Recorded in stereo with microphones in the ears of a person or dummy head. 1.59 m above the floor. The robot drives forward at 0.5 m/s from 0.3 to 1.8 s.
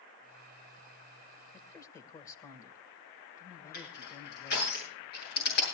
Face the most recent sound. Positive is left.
turn(degrees=55)  # may be behind; listen again after turning